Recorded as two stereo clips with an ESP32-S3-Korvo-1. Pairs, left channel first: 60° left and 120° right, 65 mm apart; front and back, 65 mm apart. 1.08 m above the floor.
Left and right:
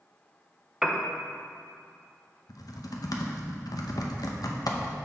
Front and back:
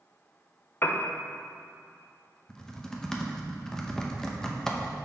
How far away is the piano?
About 0.5 m.